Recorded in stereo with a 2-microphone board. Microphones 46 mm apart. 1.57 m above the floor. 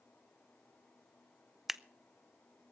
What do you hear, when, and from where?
1.7 s scissors: 5° right (ahead or behind), 0.5 m